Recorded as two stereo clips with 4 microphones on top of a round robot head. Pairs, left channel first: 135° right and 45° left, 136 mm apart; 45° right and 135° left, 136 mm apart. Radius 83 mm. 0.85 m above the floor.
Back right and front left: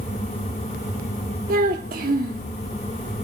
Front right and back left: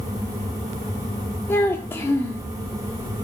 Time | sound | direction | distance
1.5 | a child speaking | 30° left | 0.8 m